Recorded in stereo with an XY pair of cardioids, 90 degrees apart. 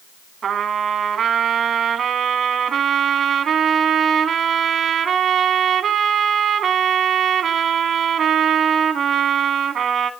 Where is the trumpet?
65° right, 1.8 m.